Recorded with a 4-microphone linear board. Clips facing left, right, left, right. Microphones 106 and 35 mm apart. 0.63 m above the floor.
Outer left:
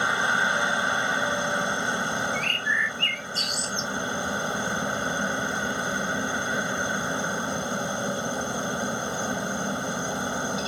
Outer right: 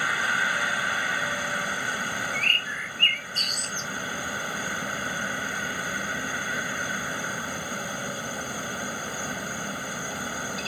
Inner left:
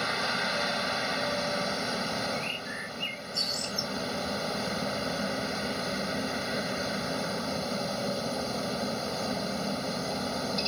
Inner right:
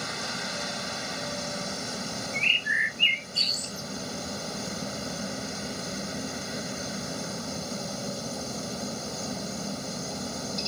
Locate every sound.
0.0 s a helicopter: 20° left (ahead or behind)
2.3 s a bird: 55° right (ahead or behind)